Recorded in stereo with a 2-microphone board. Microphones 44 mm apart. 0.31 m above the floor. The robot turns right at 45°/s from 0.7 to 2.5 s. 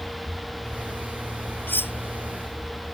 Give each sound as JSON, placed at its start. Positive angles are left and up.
{"t": 1.7, "sound": "cutlery clinking", "side_deg": 50}